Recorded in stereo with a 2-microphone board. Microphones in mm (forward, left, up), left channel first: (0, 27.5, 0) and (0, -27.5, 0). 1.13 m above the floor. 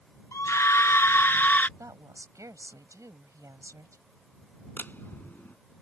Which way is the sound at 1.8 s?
80° right.